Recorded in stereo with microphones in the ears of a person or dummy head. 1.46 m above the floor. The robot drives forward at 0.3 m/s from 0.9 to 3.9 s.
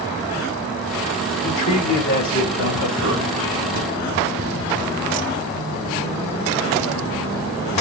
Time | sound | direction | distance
1.4 | a man speaking | 75° left (ahead or behind) | 3.5 m
3.8 | a cupboard door | 35° right (ahead or behind) | 1.9 m